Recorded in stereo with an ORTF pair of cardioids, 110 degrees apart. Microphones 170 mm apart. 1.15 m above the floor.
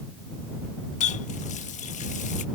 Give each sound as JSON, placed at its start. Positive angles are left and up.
{"t": 1.0, "sound": "a running tap", "azimuth_deg": 45}